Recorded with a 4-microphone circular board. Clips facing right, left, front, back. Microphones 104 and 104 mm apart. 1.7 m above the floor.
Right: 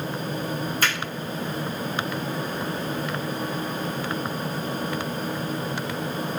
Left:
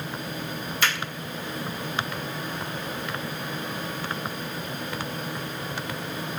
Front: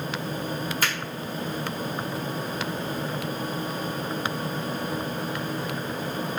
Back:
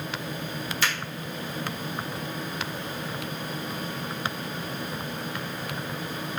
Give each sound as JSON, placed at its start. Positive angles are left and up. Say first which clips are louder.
{"t": 0.8, "sound": "a finger snap", "louder": "left 1 dB, back 1 dB", "azimuth_deg": -40, "distance_m": 1.6}